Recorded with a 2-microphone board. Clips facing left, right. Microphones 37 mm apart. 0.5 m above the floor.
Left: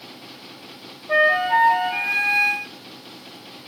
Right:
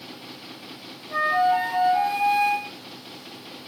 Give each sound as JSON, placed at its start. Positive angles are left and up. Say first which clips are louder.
{"t": 1.1, "sound": "a flute", "louder": "left 4 dB", "side_deg": 80, "distance_m": 7.0}